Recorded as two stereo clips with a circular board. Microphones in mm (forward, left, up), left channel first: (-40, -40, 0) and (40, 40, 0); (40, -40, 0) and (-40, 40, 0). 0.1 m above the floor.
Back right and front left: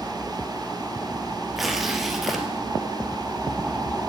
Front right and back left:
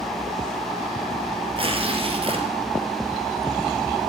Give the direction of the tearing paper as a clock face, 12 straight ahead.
8 o'clock.